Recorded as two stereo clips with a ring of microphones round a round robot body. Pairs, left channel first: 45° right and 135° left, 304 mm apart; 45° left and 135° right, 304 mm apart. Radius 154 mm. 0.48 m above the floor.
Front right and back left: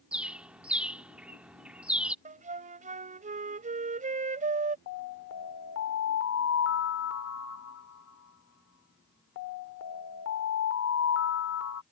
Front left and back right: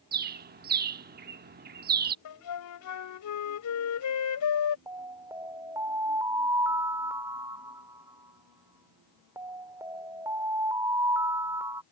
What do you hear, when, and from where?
0.1 s a bird: 140° right
2.2 s a flute: 70° left
4.9 s an alarm: 60° right